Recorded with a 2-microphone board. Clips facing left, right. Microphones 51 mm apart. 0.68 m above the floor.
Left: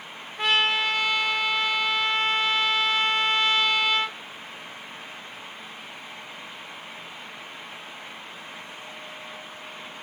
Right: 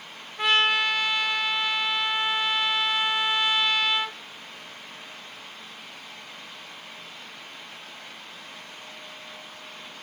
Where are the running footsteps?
No running footsteps in this recording.